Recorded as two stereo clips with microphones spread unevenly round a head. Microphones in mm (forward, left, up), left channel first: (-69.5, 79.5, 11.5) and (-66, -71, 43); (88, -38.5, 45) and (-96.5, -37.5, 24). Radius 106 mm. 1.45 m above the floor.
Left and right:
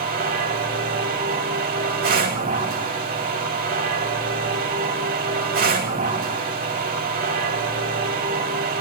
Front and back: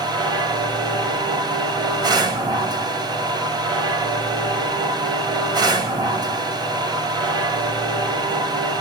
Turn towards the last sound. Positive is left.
turn(degrees=-110)